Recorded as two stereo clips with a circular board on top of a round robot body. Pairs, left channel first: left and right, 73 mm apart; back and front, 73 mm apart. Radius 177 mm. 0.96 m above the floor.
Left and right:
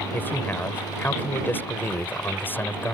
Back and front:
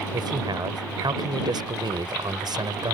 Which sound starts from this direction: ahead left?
A man speaking, at 0.1 s.